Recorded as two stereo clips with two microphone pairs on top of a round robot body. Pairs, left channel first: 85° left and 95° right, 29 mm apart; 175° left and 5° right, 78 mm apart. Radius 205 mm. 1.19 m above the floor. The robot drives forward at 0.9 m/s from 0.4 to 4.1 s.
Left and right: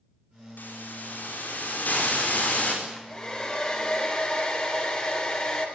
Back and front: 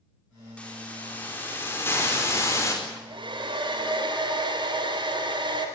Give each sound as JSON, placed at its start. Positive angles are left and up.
{"t": 0.6, "sound": "a hiss", "azimuth_deg": 100, "distance_m": 5.0}
{"t": 2.8, "sound": "a hair dryer", "azimuth_deg": 20, "distance_m": 4.5}